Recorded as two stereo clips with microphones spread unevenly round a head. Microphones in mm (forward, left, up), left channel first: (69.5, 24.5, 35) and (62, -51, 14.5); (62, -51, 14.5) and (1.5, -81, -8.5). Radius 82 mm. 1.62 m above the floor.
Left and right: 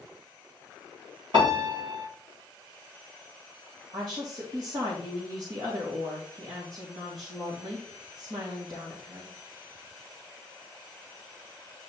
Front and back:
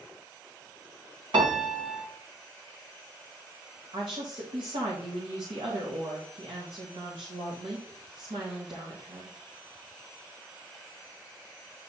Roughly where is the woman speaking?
Behind.